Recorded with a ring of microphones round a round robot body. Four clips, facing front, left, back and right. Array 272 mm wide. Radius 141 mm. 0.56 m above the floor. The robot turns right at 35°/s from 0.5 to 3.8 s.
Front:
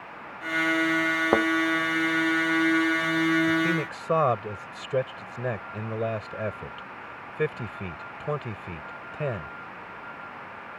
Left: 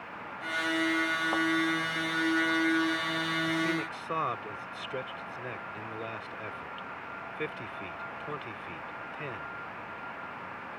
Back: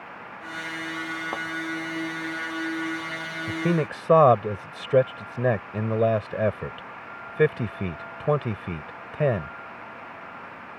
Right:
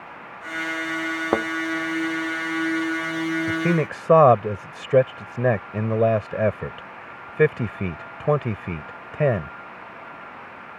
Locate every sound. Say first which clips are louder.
1.3 s a thud: right 9 dB, front 13 dB; 50° right; by 1.5 s 45° right
3.5 s a man speaking: right 8 dB, even; 130° right; by 9.5 s 120° right